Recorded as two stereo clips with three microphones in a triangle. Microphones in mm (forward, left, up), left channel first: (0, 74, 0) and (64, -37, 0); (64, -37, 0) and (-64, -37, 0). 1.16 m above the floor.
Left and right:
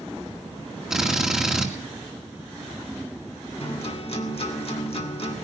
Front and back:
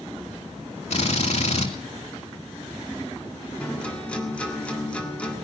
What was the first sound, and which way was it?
A drill, 25° left.